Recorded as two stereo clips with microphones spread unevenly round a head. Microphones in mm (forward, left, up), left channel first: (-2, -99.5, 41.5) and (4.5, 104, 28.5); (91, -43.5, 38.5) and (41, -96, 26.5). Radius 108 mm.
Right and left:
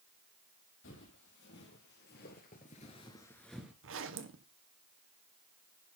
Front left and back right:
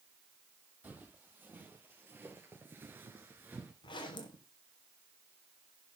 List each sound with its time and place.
0.8 s footsteps: 65° right, 4 m; by 3.7 s 170° left, 1.7 m
3.8 s a zipper: 60° left, 1.2 m